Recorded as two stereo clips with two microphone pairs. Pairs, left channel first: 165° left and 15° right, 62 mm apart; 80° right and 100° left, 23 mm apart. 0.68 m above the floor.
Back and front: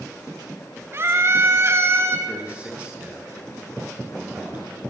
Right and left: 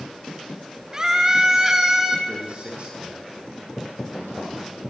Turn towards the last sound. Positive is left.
turn(degrees=55)